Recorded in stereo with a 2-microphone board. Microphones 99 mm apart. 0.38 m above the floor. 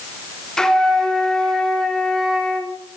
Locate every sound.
0.6 s a flute: 5° left (ahead or behind), 1.4 m